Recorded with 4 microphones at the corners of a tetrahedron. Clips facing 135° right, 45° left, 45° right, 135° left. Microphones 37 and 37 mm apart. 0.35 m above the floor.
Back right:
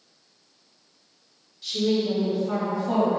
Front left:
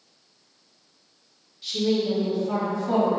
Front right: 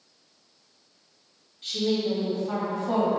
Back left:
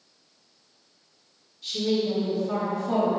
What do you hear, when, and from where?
1.6 s a woman speaking: 35° right, 1.7 m; by 3.2 s 70° right, 1.9 m